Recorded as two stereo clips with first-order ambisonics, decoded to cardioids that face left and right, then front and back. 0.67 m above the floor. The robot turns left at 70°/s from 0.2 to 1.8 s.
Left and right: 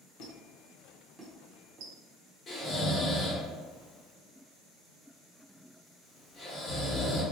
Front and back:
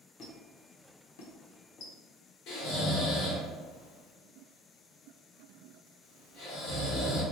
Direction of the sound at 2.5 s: 20° left.